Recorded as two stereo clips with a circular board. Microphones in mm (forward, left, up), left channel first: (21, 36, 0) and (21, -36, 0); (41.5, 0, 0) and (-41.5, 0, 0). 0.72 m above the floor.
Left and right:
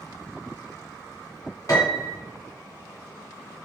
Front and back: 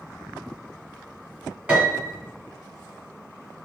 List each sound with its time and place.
1.7 s a piano: 110° left, 1.0 m